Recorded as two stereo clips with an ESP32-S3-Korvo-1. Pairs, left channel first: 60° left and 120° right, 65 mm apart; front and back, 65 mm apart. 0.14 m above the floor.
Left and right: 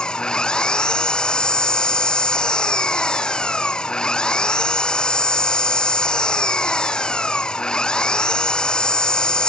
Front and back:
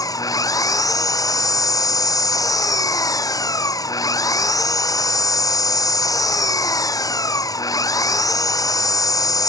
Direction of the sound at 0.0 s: 15° right.